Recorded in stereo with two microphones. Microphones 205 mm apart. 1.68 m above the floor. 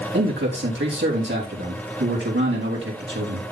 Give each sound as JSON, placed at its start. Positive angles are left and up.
{"t": 0.1, "sound": "a man speaking", "side_deg": -65, "distance_m": 3.0}